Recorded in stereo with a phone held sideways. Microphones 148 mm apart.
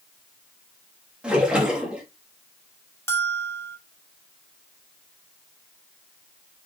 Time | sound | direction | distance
1.2 | a splash | 5° right (ahead or behind) | 3 m
3.1 | a bell | 15° left (ahead or behind) | 1.0 m